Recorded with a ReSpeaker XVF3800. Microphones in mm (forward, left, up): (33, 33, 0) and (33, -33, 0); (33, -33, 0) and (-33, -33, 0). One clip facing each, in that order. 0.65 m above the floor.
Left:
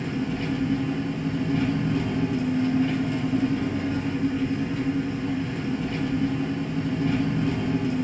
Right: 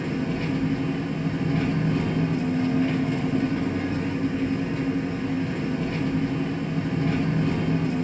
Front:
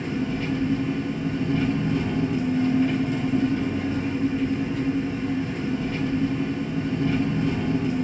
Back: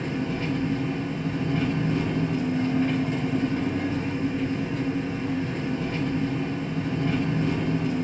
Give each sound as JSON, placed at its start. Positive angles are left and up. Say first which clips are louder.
{"t": 0.0, "sound": "an engine running", "louder": "right 1 dB, front 1 dB", "azimuth_deg": -135, "distance_m": 2.0}